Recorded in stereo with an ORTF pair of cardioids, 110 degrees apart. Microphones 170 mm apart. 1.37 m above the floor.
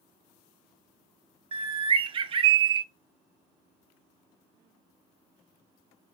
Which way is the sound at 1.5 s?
30° right.